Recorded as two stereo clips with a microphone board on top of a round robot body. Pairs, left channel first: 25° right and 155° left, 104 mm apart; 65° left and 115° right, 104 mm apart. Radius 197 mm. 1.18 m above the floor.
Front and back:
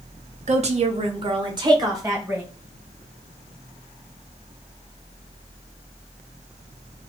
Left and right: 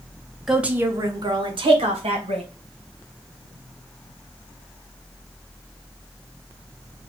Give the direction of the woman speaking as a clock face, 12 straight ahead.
7 o'clock.